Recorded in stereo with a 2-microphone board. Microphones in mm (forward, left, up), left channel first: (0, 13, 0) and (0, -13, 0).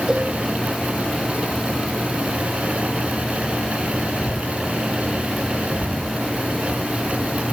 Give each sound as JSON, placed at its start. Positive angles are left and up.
{"t": 0.1, "sound": "a cowbell", "side_deg": -35, "distance_m": 7.5}